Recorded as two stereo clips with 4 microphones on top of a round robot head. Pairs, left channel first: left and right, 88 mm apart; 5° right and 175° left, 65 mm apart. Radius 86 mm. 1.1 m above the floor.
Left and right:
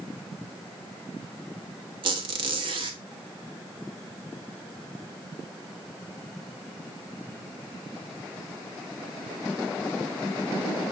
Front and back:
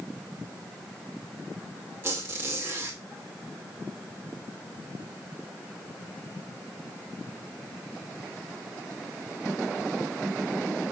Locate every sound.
2.0 s a squeak: 115° right, 0.8 m